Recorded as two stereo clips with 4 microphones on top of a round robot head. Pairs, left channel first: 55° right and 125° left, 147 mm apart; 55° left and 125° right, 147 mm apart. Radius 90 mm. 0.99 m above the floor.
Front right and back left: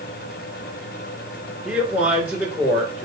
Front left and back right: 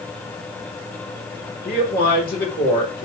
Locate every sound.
1.6 s a man speaking: 50° left, 3 m